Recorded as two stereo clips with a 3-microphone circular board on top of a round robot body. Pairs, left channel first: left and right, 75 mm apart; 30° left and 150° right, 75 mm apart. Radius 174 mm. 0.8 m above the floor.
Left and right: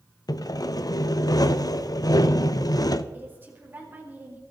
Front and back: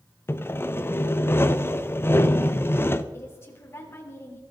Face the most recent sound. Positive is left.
turn(degrees=-25)